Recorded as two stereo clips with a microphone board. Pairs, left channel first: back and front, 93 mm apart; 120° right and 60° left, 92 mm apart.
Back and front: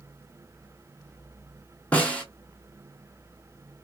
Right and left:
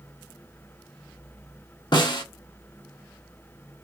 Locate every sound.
1.9 s a snare drum: 110° right, 1.0 m